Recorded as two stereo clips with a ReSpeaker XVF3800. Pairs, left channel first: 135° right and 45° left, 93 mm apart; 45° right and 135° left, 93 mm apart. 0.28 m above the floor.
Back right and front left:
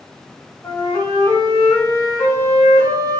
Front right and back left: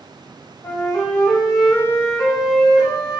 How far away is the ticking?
No ticking in this recording.